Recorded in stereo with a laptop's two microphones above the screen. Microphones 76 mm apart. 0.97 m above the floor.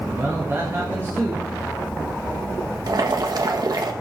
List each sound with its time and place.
0.1 s a man speaking: 40° right (ahead or behind), 1.4 m
2.9 s boiling: 60° right (ahead or behind), 1.0 m